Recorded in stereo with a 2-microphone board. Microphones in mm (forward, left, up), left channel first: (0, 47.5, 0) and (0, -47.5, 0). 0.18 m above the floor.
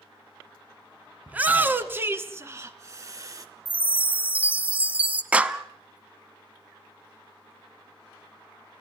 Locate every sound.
1.3 s a shout: 15° right (ahead or behind), 2 m; by 3.5 s 35° right (ahead or behind), 3 m
3.6 s a chime: 15° right (ahead or behind), 1.2 m
5.3 s a clap: 15° right (ahead or behind), 0.9 m